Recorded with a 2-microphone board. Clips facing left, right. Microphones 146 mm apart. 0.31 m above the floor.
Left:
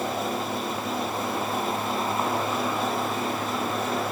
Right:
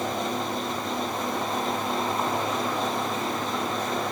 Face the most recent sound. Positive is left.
No sound to turn to.